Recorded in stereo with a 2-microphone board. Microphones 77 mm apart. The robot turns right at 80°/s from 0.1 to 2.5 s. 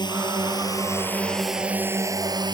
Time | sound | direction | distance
0.0 | a drone | 75° left (ahead or behind) | ?